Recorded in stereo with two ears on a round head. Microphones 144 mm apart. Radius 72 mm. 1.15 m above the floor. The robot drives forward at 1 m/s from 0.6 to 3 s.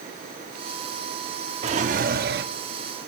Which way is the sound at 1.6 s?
40° right (ahead or behind).